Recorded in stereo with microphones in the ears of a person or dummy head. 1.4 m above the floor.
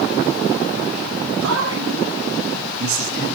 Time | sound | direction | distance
1.4 | a man speaking | 75° right (ahead or behind) | 1.9 m